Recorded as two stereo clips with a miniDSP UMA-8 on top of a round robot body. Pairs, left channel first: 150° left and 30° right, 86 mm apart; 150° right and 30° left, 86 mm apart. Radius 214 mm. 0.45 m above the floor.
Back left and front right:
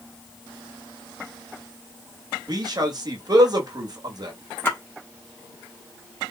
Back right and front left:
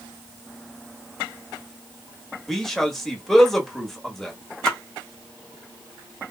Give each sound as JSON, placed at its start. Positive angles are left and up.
{"t": 2.5, "sound": "a man speaking", "azimuth_deg": -65, "distance_m": 1.3}
{"t": 4.7, "sound": "a splash", "azimuth_deg": 135, "distance_m": 1.4}